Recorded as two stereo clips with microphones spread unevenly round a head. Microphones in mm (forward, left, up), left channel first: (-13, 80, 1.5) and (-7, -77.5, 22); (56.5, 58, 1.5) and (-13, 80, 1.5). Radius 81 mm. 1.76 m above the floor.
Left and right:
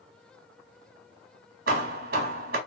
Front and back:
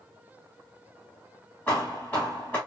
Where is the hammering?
100° right, 1.8 m.